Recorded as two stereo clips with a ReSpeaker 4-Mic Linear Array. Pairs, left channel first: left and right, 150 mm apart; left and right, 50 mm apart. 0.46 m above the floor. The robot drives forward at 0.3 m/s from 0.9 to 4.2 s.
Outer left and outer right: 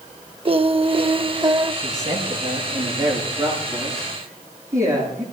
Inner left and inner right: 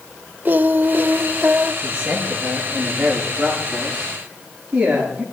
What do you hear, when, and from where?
0.5 s singing: 40° right (ahead or behind), 0.6 m; by 1.7 s 30° right (ahead or behind), 0.7 m
1.8 s a man speaking: 20° right (ahead or behind), 6.5 m